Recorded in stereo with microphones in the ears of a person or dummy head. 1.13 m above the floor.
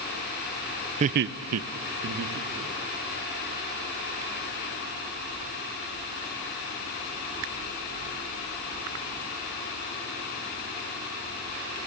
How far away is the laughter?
About 0.8 m.